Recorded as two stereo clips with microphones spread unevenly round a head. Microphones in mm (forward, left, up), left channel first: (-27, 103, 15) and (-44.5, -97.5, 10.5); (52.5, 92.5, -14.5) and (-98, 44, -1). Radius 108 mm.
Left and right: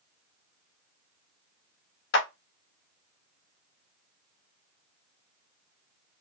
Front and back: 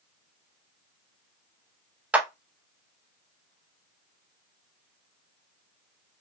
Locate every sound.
2.1 s a clap: 115° left, 0.7 m